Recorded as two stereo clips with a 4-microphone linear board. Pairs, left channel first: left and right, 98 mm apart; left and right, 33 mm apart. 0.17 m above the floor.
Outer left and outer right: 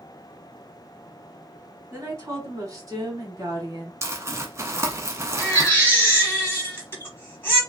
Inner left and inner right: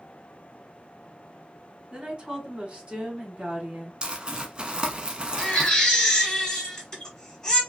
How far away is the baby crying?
About 1.3 m.